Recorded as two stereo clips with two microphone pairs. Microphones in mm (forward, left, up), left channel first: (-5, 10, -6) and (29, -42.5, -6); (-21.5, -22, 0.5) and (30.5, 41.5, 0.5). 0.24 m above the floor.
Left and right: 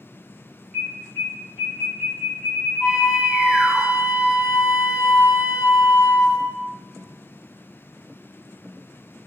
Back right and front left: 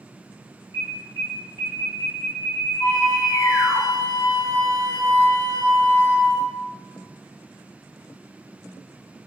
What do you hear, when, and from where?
0.7 s an alarm: 135° right, 1.4 m
2.8 s a flute: 165° right, 2.0 m